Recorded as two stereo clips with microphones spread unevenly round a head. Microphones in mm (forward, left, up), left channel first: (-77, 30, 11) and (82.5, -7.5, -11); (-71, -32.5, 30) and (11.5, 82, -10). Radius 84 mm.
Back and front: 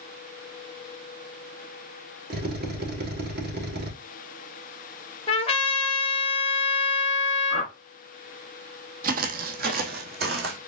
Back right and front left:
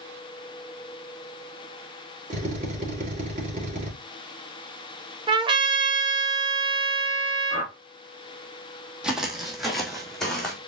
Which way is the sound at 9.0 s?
45° right.